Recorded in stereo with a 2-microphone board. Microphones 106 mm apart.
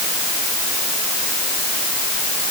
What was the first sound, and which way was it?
Only background noise.